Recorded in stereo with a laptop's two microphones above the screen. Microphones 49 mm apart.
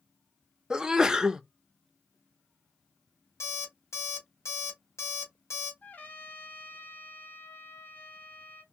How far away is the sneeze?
About 0.5 m.